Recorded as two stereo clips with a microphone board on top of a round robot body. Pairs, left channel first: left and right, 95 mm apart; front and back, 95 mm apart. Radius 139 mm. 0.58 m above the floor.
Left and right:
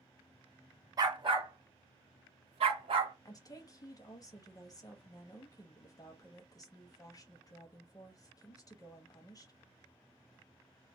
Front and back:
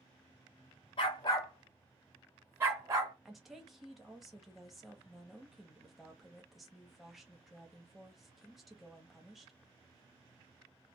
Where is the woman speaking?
90° left, 1.1 m.